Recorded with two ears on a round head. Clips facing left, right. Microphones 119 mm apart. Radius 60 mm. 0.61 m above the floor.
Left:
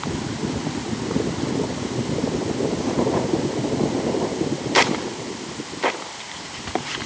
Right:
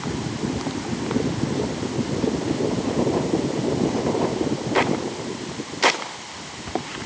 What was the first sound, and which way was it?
Only background noise.